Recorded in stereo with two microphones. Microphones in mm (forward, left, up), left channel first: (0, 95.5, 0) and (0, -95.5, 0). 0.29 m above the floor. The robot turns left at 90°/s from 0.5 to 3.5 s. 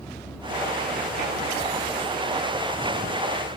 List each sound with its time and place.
0.0 s a vehicle: 170° left; by 3.6 s 100° right